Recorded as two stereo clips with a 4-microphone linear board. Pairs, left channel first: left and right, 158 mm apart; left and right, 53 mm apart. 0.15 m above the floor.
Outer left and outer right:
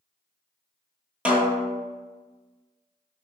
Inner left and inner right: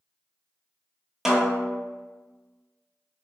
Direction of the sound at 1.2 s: 10° right (ahead or behind).